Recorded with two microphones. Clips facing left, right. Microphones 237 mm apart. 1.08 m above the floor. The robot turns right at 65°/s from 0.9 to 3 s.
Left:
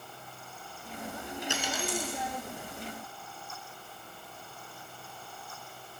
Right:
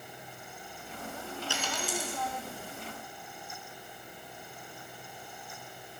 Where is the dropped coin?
160° left, 4 m; by 2.2 s 155° right, 4 m.